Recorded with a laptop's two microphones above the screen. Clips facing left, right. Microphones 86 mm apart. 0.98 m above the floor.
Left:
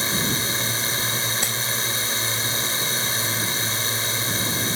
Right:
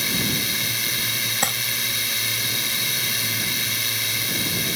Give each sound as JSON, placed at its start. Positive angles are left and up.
{"t": 0.0, "sound": "a drone", "side_deg": 35}
{"t": 1.4, "sound": "crumpling", "side_deg": -55}